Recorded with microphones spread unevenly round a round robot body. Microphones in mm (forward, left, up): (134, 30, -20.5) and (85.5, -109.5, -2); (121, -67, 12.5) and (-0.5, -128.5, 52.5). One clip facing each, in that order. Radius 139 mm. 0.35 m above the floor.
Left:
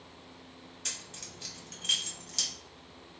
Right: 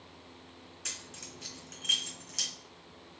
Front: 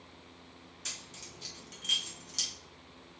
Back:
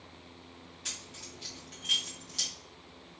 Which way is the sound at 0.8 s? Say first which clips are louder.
Even, back 1 dB; 25° left.